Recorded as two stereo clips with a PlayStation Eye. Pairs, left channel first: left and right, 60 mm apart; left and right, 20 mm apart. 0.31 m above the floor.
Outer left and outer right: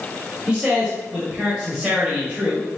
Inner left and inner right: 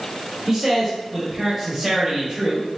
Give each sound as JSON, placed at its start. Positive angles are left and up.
{"t": 0.5, "sound": "a man speaking", "side_deg": -15, "distance_m": 1.4}